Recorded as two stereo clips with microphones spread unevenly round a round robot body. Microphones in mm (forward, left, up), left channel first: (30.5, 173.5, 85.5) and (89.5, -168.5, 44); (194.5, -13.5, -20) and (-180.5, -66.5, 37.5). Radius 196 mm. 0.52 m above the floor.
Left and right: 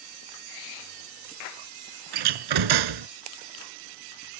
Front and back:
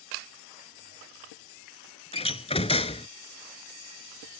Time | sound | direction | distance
2.1 | a door slam | 70° right | ?